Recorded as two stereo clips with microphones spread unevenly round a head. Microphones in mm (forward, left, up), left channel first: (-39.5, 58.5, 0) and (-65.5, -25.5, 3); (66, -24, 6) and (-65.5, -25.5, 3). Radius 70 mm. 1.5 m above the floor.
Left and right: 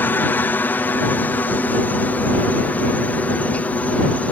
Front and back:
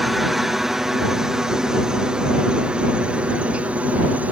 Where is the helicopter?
95° left; by 4.3 s 115° left.